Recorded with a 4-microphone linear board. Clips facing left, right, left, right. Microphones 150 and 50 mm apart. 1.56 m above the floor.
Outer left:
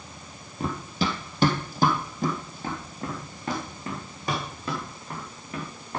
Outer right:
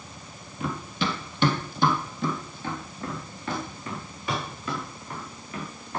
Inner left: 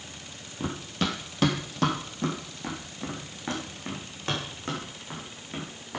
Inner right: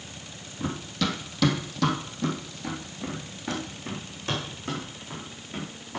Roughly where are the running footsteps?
Left.